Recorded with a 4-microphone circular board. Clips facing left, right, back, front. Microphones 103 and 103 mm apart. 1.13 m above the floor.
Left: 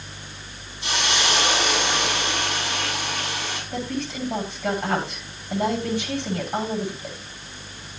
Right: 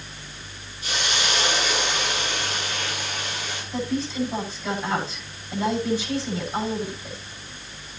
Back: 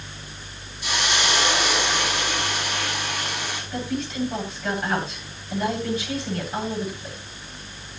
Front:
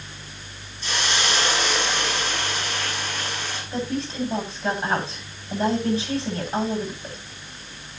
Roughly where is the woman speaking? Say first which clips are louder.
Right 4 dB, front 1 dB; ahead left.